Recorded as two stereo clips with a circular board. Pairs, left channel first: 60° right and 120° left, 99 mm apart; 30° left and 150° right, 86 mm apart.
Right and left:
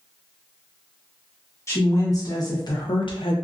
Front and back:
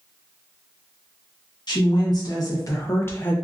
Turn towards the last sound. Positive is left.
turn(degrees=-40)